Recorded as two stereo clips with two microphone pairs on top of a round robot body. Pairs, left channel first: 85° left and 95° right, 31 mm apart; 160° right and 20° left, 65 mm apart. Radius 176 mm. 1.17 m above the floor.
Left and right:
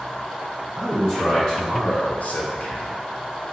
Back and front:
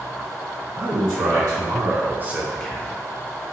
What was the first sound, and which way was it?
A man speaking, 15° left.